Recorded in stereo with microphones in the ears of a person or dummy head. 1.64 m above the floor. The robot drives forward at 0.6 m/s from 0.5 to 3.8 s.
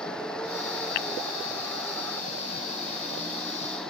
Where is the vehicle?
5° left (ahead or behind); by 3.9 s centre (ahead or behind).